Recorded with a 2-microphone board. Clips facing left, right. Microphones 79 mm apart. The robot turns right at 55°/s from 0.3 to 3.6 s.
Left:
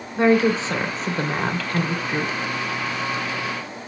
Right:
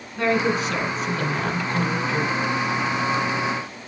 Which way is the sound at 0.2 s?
45° left.